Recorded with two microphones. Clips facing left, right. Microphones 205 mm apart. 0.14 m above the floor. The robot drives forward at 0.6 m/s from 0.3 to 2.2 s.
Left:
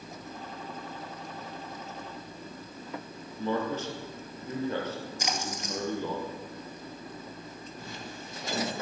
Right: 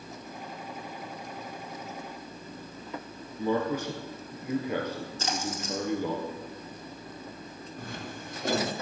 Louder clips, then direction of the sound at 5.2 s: Right 4 dB; 15° left (ahead or behind).